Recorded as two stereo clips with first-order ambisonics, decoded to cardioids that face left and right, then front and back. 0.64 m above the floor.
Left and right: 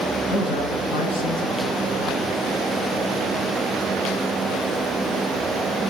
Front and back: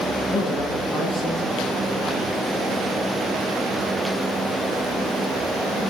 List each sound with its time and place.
0.3 s a man speaking: 80° left, 9 m